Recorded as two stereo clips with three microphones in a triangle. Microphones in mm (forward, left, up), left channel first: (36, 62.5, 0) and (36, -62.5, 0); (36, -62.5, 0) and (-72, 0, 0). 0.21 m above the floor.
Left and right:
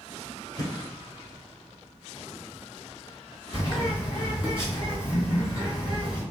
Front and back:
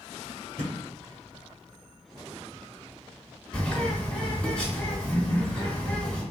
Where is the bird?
45° left, 1.9 m.